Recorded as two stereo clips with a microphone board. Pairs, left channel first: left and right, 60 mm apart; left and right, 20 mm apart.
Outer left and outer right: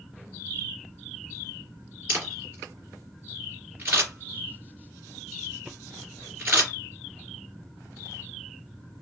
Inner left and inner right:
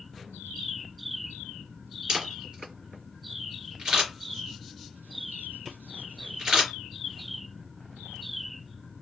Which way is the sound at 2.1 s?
30° right (ahead or behind).